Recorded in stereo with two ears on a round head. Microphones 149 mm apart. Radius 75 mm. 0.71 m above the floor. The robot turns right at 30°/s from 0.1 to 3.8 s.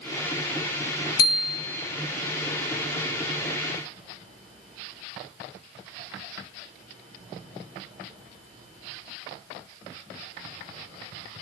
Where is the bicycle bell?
55° left (ahead or behind), 5.5 m; by 1.9 s 35° left (ahead or behind), 5.5 m.